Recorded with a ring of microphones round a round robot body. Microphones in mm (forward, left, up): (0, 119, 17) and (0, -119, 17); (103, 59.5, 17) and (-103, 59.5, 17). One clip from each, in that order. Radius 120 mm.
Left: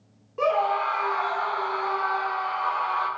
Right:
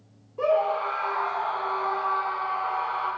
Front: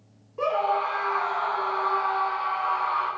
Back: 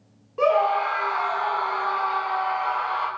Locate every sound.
0.4 s a scream: 135° left, 2.5 m; by 3.1 s 120° left, 4 m